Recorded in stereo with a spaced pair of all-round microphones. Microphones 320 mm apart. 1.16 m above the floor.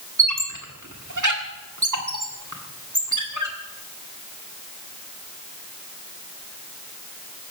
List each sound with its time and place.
0.2 s a squeak: 65° right (ahead or behind), 1.7 m